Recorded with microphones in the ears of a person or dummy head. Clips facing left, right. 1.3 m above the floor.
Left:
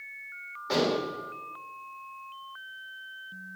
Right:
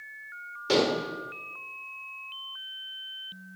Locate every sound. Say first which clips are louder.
0.7 s dishes clattering: right 2 dB; 45° right (ahead or behind), 3 m